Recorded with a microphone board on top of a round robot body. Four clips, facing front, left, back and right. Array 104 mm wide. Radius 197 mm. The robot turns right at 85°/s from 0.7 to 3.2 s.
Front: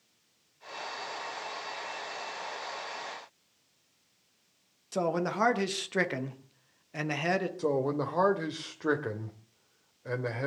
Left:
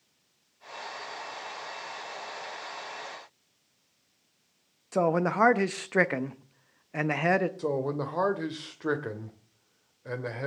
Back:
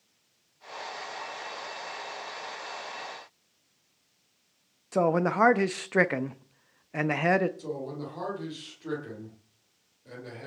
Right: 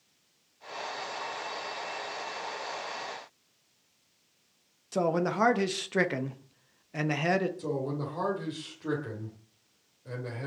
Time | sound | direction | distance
4.9 | a man speaking | 135° left | 1.4 m
7.6 | a man speaking | 40° left | 2.5 m